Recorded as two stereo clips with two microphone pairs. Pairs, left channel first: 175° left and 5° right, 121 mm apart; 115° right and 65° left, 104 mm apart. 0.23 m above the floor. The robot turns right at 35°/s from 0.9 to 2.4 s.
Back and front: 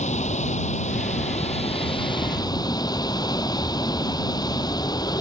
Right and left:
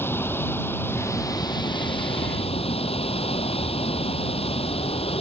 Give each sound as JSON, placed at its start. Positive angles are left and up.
{"t": 0.0, "sound": "running water", "azimuth_deg": 175}